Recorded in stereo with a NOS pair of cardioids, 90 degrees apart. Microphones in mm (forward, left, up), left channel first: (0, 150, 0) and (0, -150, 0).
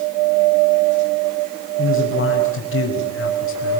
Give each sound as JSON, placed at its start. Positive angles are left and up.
{"t": 1.8, "sound": "a man speaking", "azimuth_deg": 45, "distance_m": 5.5}